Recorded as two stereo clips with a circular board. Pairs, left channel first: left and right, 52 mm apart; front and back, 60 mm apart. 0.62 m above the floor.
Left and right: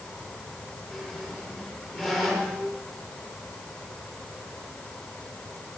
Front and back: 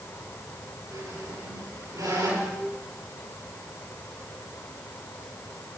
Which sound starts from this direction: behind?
A squeak, at 0.9 s.